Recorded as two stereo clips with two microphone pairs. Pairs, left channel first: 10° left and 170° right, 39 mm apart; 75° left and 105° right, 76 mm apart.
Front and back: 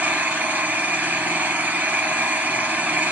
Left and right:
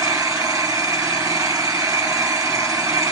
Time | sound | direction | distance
0.0 | an engine running | 135° right | 2.5 m